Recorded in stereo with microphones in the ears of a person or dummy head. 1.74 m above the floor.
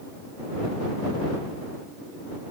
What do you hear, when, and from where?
Only background noise.